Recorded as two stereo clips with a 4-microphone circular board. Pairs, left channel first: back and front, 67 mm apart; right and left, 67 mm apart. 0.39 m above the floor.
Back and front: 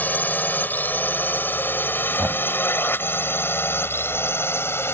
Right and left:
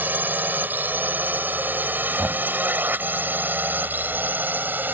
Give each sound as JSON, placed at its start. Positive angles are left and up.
{"t": 0.0, "sound": "a drone", "azimuth_deg": 135}
{"t": 2.2, "sound": "knocking", "azimuth_deg": 45}